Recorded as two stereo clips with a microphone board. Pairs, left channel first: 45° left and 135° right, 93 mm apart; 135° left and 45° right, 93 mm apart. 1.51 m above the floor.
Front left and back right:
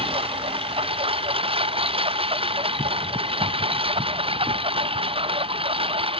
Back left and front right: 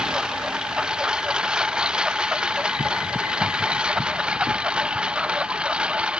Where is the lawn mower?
125° right.